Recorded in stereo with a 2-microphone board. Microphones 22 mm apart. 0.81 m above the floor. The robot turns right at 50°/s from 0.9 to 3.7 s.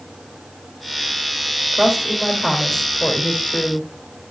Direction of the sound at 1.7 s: 25° right.